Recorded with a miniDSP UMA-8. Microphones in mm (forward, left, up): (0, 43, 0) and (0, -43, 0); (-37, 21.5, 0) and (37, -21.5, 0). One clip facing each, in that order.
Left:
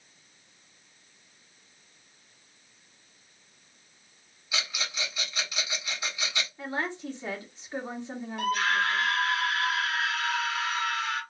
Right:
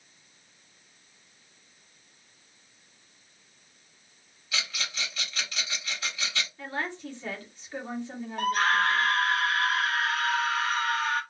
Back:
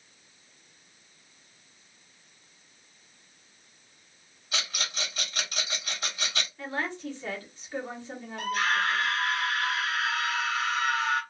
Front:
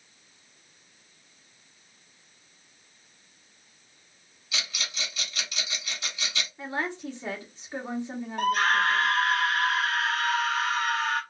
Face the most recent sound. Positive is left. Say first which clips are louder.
# right 2 dB, front 4 dB
turn(degrees=-55)